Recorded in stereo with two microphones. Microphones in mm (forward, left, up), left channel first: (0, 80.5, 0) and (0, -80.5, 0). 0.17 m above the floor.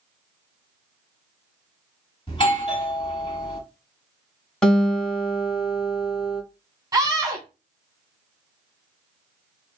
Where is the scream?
20° right (ahead or behind), 1.6 m.